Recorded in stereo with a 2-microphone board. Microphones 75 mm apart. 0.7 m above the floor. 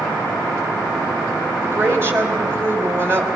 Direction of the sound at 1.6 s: 35° right (ahead or behind).